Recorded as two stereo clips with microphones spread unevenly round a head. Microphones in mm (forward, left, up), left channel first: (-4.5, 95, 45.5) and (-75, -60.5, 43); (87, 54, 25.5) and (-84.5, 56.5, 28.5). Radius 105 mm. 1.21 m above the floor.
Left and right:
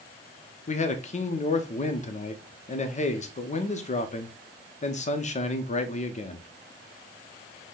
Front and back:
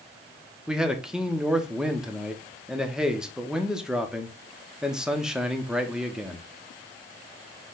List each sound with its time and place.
0.7 s a man speaking: 95° left, 0.8 m